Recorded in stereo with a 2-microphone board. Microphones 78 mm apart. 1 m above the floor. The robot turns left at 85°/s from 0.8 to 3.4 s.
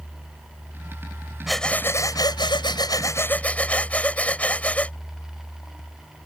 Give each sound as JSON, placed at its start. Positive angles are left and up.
{"t": 1.5, "sound": "breathing", "azimuth_deg": -175}